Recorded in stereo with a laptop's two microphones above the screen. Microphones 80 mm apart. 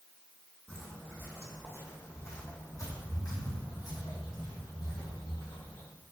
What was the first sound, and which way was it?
Footsteps, 15° left (ahead or behind).